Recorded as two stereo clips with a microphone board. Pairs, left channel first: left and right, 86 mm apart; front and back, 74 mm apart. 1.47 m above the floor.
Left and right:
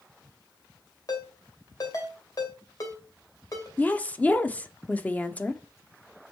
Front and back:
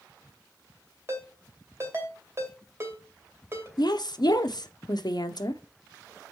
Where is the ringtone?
130° left, 2.5 m.